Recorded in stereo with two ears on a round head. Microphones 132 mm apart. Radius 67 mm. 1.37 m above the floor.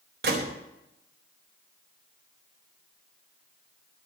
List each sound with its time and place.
0.2 s a gunshot: 70° right (ahead or behind), 4.5 m